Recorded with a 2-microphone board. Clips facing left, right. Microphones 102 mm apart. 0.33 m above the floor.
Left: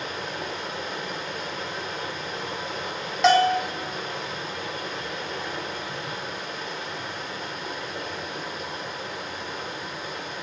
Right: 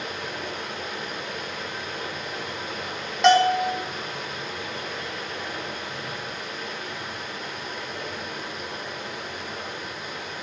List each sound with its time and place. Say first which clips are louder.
0.0 s running water: left 1 dB; 35° left (ahead or behind), 1.7 m
3.2 s a bell: right 1 dB; centre (ahead or behind), 1.2 m